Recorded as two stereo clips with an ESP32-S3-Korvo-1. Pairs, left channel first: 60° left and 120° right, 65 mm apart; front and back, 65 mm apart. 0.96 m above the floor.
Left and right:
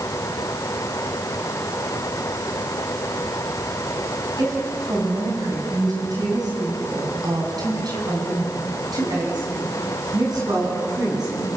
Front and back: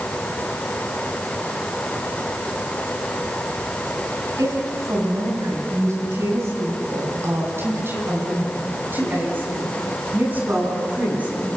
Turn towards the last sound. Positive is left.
turn(degrees=-115)